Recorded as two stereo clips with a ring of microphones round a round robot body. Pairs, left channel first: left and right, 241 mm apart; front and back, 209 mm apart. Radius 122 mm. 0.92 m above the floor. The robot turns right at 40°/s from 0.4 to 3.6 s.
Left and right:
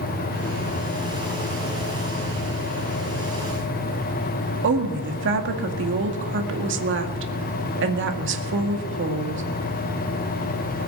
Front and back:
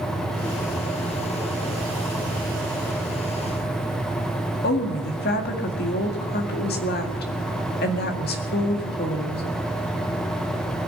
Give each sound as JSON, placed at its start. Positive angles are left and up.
{"t": 4.6, "sound": "a woman speaking", "azimuth_deg": -50, "distance_m": 2.0}